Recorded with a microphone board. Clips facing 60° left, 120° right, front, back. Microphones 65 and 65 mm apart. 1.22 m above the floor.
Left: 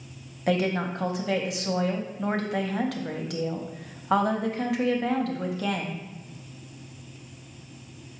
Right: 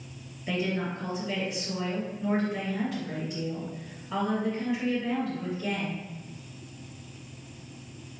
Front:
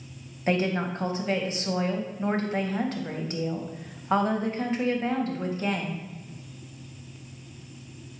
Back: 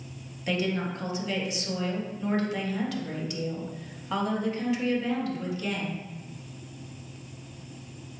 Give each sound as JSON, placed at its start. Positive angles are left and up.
{"t": 0.5, "sound": "a woman speaking", "azimuth_deg": 50, "distance_m": 0.6}